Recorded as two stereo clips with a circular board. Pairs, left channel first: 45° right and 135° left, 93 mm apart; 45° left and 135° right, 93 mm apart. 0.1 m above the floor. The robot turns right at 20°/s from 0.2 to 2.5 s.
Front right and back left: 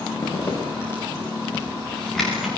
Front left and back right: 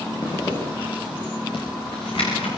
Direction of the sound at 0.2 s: 5° left.